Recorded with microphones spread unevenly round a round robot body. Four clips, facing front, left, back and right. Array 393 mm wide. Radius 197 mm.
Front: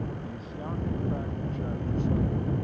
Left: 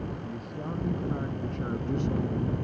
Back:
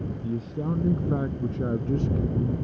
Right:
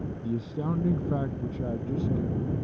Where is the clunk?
I don't hear a clunk.